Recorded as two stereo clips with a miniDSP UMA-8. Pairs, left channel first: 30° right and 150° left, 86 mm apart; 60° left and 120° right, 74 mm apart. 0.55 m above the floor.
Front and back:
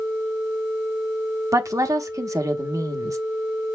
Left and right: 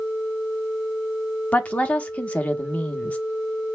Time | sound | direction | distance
1.5 | a woman speaking | 125° left | 1.0 m